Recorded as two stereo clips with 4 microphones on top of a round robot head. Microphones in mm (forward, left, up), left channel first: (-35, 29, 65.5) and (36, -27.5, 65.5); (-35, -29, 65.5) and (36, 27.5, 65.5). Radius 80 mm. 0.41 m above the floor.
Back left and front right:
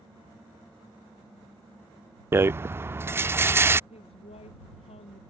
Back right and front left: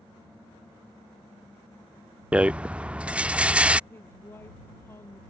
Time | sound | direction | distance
2.3 | a rattle | 20° right | ?
3.9 | a woman speaking | 150° left | ?